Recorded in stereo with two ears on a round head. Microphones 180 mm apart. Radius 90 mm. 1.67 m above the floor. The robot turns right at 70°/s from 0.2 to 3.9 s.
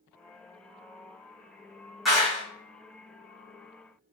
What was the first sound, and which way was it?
A clap, centre (ahead or behind).